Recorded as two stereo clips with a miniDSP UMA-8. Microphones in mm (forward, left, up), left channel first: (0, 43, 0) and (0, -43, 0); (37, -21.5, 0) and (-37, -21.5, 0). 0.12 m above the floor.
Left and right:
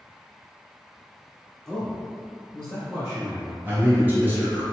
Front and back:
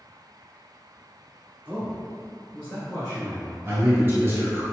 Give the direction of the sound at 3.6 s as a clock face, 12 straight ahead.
5 o'clock.